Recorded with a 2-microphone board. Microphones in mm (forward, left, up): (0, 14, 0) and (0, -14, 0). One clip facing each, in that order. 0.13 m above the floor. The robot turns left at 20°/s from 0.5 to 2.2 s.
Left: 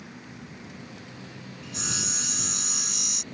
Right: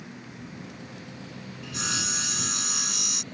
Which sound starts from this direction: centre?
Sawing, at 1.6 s.